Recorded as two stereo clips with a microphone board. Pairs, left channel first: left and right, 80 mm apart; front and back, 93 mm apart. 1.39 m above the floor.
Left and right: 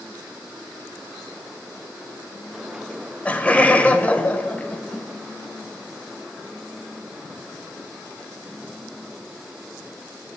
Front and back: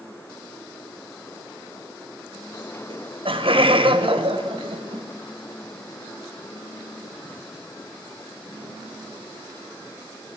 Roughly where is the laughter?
Behind.